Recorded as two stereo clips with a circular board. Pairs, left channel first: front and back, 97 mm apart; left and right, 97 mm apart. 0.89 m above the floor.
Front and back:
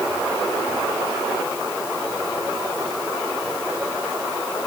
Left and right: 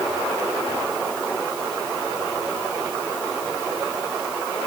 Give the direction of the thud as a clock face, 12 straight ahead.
I don't hear a thud.